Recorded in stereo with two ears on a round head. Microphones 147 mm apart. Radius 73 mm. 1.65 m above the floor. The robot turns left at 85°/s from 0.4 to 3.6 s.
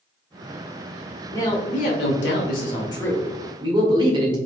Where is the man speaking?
165° left, 1.7 m; by 4.4 s 30° right, 1.7 m.